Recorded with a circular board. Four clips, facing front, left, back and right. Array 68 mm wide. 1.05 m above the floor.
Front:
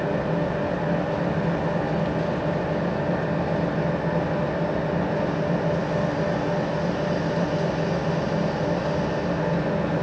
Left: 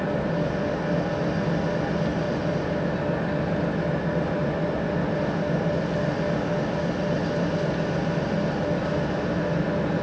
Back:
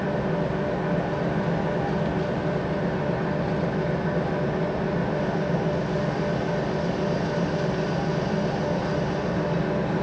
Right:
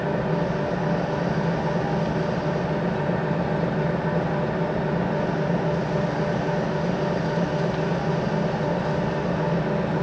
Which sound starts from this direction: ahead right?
An engine running, at 0.0 s.